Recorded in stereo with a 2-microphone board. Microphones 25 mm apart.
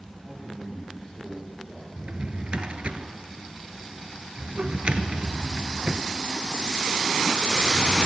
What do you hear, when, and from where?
0.2 s a man speaking: 20° right (ahead or behind), 3.5 m
2.0 s a drawer: 50° right (ahead or behind), 0.6 m